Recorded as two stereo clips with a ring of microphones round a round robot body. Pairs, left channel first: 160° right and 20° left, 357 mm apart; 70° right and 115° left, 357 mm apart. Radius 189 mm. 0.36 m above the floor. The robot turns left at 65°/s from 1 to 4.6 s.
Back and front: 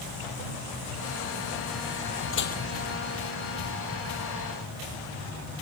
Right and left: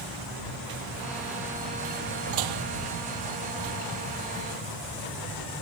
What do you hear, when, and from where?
2.3 s dishes clattering: 145° left; by 2.6 s 125° left